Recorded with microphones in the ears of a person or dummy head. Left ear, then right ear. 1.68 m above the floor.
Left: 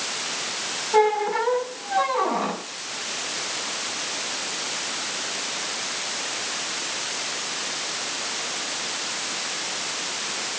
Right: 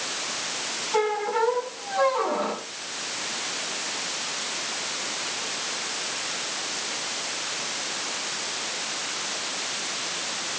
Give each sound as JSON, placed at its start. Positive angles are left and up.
{"t": 0.9, "sound": "a squeak", "side_deg": 20, "distance_m": 1.7}